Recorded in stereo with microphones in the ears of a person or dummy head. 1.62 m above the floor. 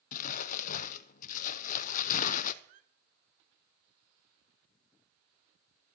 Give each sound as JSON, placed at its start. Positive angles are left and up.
{"t": 0.1, "sound": "crumpling", "side_deg": 50, "distance_m": 0.6}
{"t": 2.6, "sound": "a squeak", "side_deg": -40, "distance_m": 0.8}